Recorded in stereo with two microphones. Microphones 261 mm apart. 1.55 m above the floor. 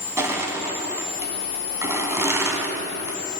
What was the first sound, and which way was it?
Crushing, 10° right (ahead or behind).